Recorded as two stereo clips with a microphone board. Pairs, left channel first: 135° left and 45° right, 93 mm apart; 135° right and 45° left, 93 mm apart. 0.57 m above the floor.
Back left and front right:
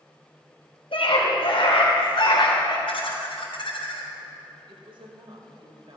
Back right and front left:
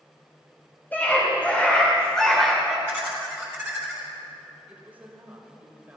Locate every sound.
0.9 s a scream: 155° left, 3 m; by 2.8 s 125° left, 1.6 m
2.9 s laughter: 125° left, 3.5 m
4.7 s a woman speaking: 25° right, 2.5 m